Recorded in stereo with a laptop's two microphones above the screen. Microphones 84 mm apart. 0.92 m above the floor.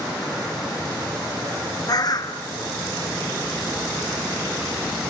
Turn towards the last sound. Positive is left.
turn(degrees=50)  # may be behind; listen again after turning